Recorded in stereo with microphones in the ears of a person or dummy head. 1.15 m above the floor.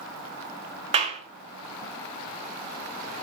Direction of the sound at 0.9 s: 30° right (ahead or behind).